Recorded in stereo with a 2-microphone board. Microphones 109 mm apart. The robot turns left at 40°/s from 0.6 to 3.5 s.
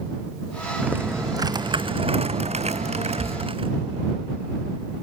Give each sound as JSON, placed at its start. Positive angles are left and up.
{"t": 0.8, "sound": "typing on a keyboard", "azimuth_deg": -15}